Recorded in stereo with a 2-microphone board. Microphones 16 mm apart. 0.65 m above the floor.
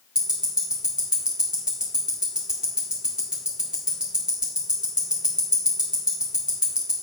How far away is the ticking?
About 1.8 m.